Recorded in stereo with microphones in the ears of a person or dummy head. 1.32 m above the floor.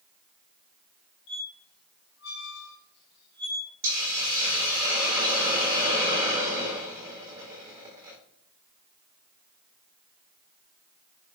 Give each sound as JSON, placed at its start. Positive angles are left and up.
{"t": 1.3, "sound": "a squeak", "side_deg": 65, "distance_m": 1.2}
{"t": 3.8, "sound": "a hiss", "side_deg": -20, "distance_m": 0.9}